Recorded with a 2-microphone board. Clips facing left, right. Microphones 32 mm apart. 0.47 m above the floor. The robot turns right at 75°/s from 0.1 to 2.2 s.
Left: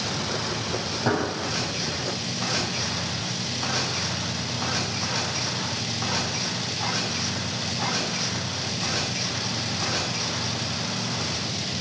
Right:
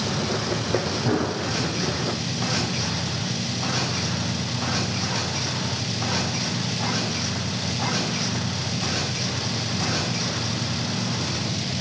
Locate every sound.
1.1 s a gunshot: 35° left (ahead or behind), 3.5 m; by 1.3 s 20° left (ahead or behind), 3.5 m